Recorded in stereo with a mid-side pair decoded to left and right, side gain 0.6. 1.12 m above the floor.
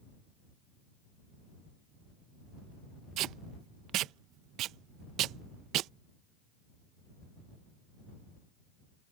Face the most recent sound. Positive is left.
turn(degrees=-60)